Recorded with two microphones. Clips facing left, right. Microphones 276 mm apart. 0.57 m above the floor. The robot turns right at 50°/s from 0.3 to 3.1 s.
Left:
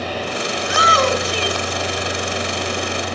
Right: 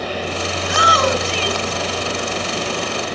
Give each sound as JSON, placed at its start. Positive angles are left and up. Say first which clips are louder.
{"t": 0.6, "sound": "a shout", "louder": "even", "side_deg": 10, "distance_m": 4.5}